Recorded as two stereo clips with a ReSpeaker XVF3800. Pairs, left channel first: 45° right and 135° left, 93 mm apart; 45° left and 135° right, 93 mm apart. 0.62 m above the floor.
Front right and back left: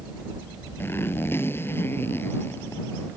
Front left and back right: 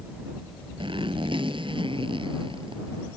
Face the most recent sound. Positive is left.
turn(degrees=-110)